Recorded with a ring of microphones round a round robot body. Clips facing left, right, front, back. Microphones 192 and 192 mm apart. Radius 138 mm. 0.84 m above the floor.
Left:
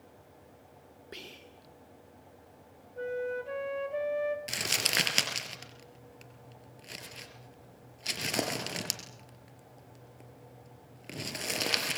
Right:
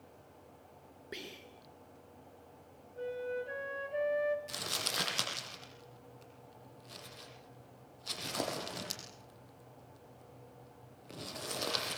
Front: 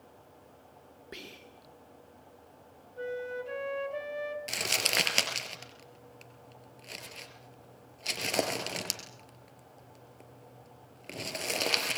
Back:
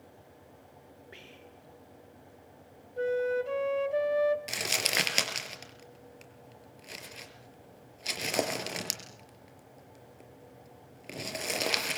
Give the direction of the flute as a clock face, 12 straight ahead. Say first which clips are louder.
Left 4 dB, back 8 dB; 7 o'clock.